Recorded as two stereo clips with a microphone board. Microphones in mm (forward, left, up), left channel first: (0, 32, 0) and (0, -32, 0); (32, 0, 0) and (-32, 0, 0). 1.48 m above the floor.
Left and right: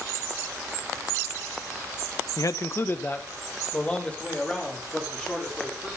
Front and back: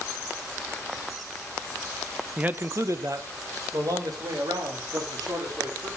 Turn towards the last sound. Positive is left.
turn(degrees=170)